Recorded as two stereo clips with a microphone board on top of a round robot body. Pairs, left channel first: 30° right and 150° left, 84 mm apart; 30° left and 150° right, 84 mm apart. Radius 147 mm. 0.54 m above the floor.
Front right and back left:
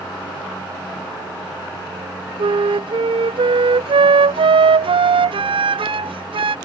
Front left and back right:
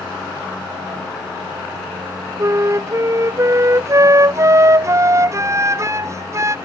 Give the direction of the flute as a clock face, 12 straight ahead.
7 o'clock.